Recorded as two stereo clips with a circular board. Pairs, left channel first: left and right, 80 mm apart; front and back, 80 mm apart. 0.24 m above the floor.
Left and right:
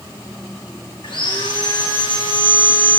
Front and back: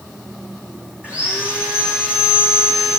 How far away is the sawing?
About 5 m.